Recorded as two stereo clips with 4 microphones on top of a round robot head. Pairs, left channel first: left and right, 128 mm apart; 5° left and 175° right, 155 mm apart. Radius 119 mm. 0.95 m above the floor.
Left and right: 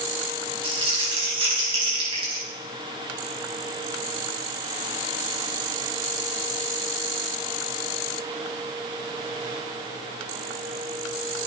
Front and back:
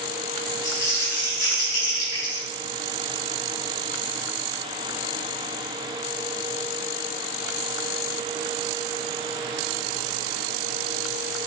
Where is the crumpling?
45° right, 5 m.